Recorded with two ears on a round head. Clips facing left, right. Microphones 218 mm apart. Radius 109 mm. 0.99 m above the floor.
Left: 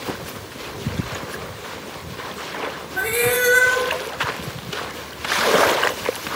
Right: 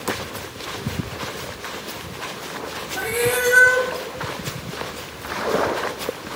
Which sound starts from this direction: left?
A cat meowing, at 3.0 s.